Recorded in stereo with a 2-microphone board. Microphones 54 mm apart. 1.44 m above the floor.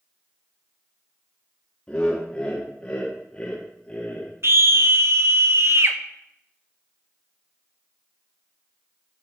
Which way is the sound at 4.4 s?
55° right (ahead or behind).